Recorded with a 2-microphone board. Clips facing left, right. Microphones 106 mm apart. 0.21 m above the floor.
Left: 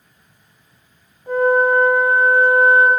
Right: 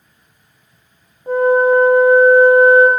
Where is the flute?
25° right (ahead or behind), 0.8 m.